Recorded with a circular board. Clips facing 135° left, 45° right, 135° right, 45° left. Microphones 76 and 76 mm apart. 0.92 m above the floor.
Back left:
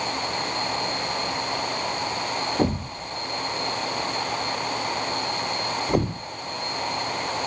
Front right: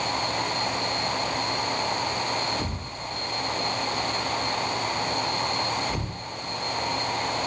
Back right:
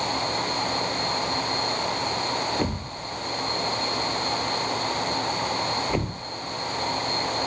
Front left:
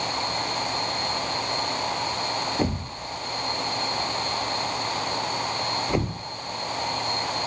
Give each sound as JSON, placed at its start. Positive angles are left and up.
{"t": 2.6, "sound": "a thud", "azimuth_deg": 125, "distance_m": 1.4}